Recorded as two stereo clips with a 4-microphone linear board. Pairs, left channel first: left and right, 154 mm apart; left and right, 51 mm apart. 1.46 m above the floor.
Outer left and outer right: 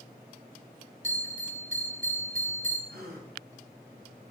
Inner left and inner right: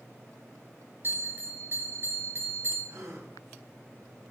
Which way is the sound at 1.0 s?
50° right (ahead or behind).